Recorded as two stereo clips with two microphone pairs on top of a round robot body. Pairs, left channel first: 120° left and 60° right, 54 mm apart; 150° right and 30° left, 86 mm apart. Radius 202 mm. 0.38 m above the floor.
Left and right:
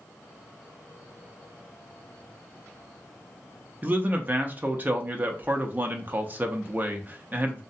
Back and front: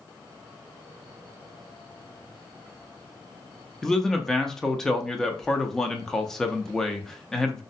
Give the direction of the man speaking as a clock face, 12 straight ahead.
3 o'clock.